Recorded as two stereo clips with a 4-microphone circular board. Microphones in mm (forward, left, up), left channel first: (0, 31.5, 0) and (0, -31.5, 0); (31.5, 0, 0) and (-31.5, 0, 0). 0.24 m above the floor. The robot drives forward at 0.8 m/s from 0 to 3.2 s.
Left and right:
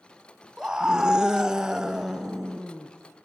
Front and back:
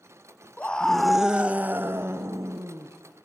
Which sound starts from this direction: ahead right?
A scream, at 0.6 s.